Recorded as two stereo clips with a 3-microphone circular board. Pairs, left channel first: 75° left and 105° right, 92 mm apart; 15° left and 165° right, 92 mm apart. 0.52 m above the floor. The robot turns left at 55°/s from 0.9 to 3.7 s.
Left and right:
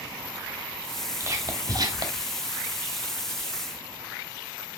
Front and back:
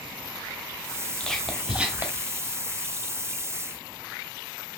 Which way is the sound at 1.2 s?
60° right.